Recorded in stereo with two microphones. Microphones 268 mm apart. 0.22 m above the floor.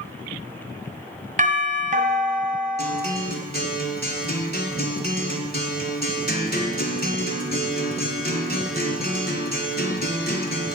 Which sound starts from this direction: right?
A doorbell, at 1.4 s.